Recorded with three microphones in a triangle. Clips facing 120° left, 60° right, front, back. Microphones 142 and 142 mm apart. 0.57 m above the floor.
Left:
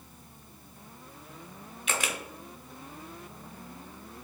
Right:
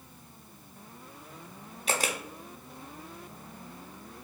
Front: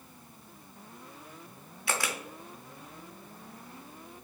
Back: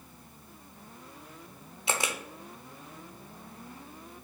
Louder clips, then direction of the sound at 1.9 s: Right 3 dB, back 1 dB; 110° right.